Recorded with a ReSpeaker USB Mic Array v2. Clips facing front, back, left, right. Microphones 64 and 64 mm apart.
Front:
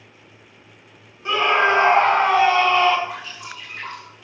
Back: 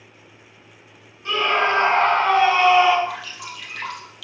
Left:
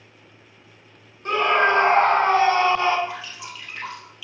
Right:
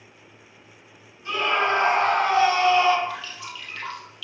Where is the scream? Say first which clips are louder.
Front 2 dB, left 4 dB; 65° left, 2.5 m; by 3.0 s 105° left, 1.6 m.